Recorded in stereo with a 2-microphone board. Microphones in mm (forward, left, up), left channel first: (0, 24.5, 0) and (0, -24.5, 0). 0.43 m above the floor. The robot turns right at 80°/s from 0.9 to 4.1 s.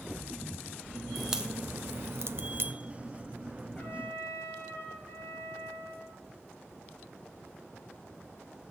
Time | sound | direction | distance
1.1 | a crack | centre (ahead or behind) | 0.5 m
3.8 | a trumpet | 30° left (ahead or behind) | 2.5 m